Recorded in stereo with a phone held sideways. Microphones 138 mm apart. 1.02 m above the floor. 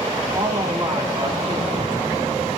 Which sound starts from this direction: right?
A man speaking, at 0.3 s.